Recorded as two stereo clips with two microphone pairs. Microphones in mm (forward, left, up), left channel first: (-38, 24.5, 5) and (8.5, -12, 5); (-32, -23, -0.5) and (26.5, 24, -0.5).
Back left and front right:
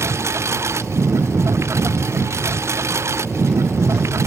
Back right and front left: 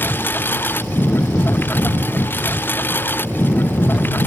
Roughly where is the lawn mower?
Right.